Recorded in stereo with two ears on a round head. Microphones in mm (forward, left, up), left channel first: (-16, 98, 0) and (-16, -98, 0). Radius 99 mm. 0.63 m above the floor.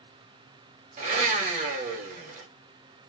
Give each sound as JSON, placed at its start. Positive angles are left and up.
{"t": 1.0, "sound": "a blender", "side_deg": -35, "distance_m": 0.8}